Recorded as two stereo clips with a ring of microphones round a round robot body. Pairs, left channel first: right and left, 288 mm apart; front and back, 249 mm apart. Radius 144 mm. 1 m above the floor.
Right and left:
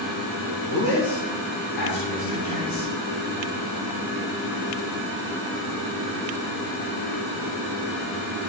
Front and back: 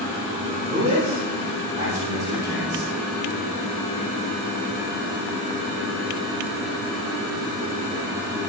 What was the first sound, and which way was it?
A man speaking, 100° right.